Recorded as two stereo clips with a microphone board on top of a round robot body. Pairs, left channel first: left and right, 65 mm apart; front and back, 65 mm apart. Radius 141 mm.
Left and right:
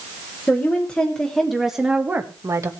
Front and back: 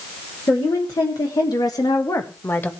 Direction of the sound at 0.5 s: 25° left.